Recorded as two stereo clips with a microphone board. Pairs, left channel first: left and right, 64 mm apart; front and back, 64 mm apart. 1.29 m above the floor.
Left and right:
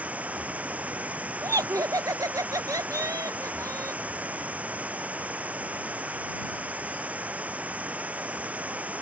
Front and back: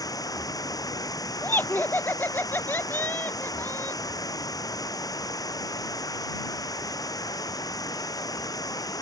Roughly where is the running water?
Ahead.